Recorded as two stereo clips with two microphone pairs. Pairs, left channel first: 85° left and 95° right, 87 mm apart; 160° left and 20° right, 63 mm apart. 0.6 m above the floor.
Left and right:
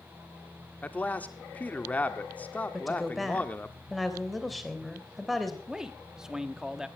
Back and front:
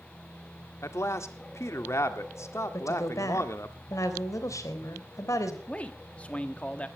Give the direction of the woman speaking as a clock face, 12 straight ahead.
6 o'clock.